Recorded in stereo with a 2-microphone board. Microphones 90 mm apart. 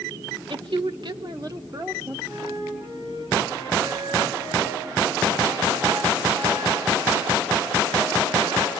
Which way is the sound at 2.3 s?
50° right (ahead or behind).